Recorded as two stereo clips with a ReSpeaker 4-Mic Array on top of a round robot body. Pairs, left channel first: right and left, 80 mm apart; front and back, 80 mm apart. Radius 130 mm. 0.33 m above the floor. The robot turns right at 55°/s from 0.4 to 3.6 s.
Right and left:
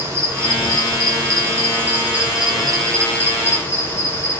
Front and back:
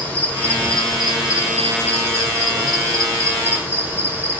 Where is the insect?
55° left, 1.2 m; by 4.4 s 130° right, 1.2 m.